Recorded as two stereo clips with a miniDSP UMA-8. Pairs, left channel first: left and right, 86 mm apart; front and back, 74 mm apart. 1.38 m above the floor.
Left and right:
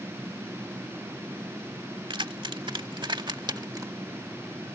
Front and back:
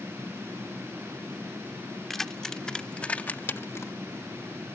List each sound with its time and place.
2.1 s keys jangling: 85° right; by 3.9 s 45° right